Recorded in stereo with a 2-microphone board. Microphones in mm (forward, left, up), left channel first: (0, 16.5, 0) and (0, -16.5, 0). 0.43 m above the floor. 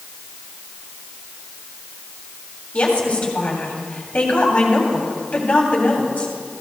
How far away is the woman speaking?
About 3 m.